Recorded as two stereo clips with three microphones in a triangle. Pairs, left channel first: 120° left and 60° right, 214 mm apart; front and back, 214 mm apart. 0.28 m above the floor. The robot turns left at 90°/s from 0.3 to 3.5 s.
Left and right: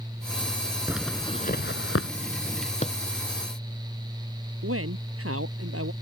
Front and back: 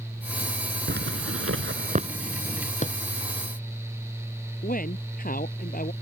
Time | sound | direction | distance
0.9 | a zipper | 135° right | ?
2.8 | a drawer | 60° left | ?
4.6 | a man speaking | 50° right | ?